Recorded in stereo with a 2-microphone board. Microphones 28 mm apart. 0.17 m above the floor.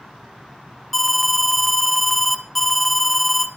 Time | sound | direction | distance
0.9 | an alarm | 10° left (ahead or behind) | 1.6 m